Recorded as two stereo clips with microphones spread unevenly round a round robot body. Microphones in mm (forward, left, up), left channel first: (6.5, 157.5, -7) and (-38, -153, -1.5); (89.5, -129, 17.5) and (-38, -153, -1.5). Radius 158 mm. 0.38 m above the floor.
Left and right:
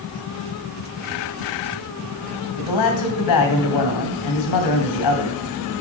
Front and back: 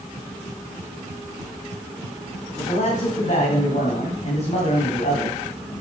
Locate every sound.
2.6 s a man speaking: 70° left, 2.5 m